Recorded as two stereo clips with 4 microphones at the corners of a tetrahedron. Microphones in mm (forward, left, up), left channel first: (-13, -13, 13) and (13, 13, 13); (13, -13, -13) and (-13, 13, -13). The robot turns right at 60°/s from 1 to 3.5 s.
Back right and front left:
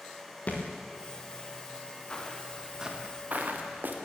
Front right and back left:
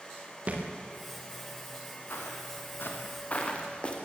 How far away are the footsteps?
About 5.5 m.